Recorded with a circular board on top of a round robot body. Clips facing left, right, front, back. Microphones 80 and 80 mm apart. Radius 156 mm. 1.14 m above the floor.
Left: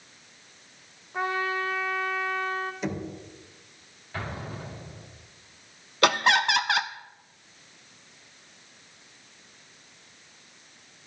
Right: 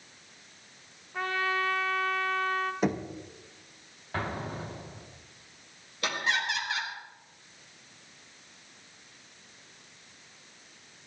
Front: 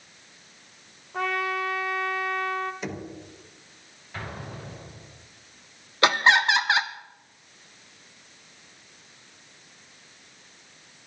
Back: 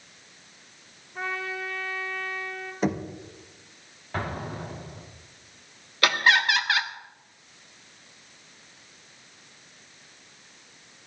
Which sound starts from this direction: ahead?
A trumpet, at 1.1 s.